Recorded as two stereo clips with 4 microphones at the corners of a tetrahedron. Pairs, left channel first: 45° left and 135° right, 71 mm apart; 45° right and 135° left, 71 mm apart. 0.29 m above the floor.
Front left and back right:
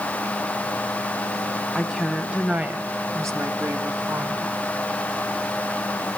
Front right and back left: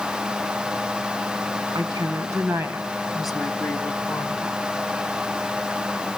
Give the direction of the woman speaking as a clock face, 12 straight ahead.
8 o'clock.